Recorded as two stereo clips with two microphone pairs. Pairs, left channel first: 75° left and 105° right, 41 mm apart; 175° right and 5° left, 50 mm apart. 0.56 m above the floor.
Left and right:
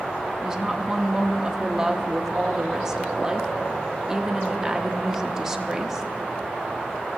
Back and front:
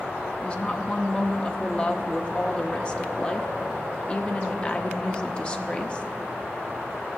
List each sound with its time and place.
0.4 s a woman speaking: 165° right, 0.7 m